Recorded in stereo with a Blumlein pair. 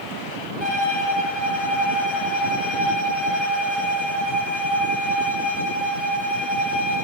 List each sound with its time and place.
0.6 s a violin: 30° left, 3.5 m